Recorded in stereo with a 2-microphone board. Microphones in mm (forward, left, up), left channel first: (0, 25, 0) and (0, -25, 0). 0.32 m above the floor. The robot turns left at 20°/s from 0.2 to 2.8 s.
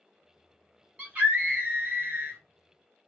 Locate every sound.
1.0 s a scream: 30° right (ahead or behind), 1.7 m; by 2.4 s 40° right (ahead or behind), 1.7 m